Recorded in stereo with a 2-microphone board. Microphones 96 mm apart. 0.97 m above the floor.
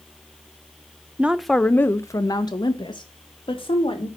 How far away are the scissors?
No scissors in this recording.